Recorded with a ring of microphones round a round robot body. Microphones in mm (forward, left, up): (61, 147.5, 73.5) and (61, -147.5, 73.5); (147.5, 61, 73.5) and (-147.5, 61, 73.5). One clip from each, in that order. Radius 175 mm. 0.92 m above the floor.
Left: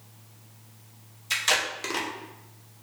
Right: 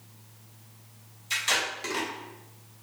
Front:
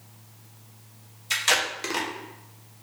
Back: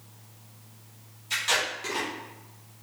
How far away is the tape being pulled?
About 1.3 m.